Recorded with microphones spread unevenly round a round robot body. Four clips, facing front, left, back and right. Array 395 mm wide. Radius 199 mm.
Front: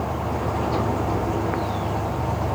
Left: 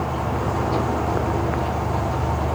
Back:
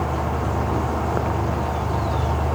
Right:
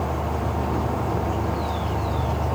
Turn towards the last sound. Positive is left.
No sound to turn to.